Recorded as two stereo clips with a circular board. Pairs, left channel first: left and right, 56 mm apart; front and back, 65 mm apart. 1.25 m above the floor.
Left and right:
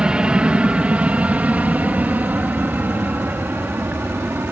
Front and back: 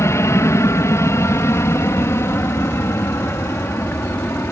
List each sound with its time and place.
0.0 s an aircraft: 20° right; by 4.5 s 45° right